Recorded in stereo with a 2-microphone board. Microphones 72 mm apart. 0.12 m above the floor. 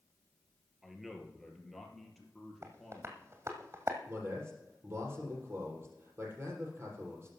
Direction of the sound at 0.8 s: 5° right (ahead or behind).